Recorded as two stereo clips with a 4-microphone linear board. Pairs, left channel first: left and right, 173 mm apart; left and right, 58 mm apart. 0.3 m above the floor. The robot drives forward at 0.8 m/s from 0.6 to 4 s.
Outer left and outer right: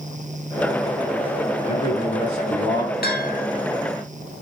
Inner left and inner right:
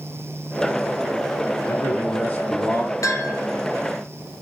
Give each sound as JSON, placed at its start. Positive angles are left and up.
{"t": 1.7, "sound": "a man speaking", "side_deg": 50, "distance_m": 3.5}
{"t": 3.0, "sound": "a bell", "side_deg": 70, "distance_m": 1.3}